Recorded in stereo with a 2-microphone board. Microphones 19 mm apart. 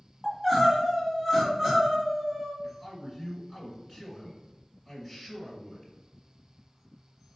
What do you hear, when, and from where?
0.2 s crying: 25° right (ahead or behind), 1.7 m
2.6 s a man speaking: 10° right (ahead or behind), 2.0 m